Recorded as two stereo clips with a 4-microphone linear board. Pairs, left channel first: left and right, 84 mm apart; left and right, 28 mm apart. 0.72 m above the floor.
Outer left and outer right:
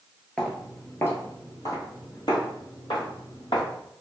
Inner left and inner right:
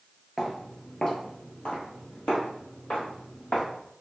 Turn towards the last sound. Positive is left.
turn(degrees=65)  # may be behind; listen again after turning